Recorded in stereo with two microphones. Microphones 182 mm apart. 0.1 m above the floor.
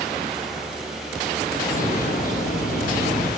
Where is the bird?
50° left (ahead or behind), 3.5 m.